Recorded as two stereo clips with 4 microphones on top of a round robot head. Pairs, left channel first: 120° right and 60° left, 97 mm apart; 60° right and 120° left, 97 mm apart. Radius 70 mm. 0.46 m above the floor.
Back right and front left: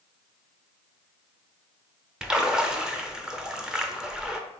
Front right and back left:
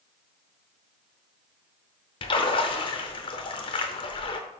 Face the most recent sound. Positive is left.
turn(degrees=-25)